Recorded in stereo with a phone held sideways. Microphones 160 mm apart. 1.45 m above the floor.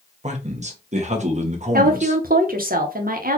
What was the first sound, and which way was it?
A man speaking, 45° right (ahead or behind).